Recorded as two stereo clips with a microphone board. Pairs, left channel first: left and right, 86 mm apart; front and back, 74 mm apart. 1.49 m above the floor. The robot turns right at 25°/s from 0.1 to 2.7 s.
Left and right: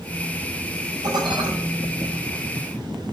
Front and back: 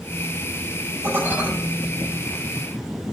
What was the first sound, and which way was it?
Dishes clattering, 120° right.